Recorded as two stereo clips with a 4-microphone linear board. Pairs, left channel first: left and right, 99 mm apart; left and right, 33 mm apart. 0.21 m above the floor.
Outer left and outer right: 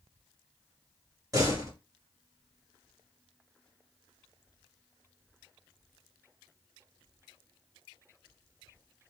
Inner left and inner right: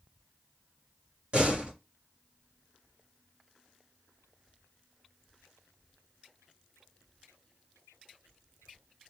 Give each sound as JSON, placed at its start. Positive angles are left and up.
{"t": 1.3, "sound": "a door slam", "side_deg": -35, "distance_m": 2.5}